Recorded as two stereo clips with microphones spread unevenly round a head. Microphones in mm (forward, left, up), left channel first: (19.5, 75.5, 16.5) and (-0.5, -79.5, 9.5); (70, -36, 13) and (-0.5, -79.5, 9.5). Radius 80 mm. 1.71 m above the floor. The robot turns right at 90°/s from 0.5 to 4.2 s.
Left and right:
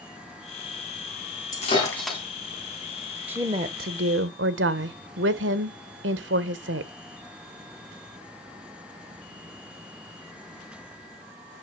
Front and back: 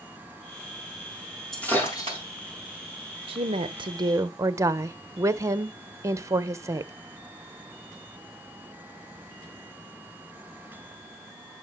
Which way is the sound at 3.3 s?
Straight behind.